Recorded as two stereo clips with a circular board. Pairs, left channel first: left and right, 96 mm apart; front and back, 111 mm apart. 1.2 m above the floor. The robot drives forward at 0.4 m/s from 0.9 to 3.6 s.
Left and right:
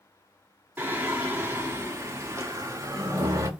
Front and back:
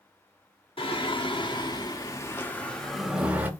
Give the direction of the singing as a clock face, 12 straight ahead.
1 o'clock.